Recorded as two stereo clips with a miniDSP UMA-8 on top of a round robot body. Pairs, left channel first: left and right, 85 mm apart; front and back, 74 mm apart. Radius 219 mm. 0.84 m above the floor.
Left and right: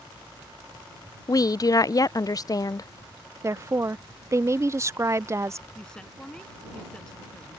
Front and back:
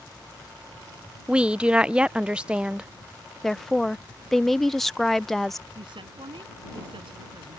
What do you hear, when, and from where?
1.3 s a woman speaking: 110° left
3.4 s a woman speaking: 85° right
5.8 s a woman speaking: 170° left